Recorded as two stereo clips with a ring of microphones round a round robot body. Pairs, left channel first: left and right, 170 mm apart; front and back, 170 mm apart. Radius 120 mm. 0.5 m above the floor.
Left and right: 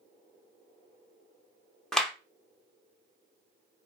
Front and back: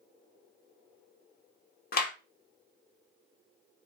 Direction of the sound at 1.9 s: 5° left.